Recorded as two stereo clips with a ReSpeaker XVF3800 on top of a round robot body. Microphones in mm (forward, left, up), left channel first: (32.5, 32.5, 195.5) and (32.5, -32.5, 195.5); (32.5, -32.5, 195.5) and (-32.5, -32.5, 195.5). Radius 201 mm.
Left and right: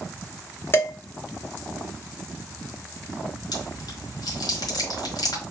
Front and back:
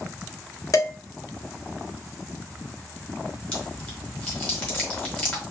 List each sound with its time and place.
0.7 s dishes clattering: 35° left, 1.5 m
3.5 s chewing: 75° left, 1.4 m